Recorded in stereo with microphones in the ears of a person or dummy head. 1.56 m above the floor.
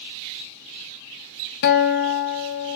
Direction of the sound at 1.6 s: 50° left (ahead or behind).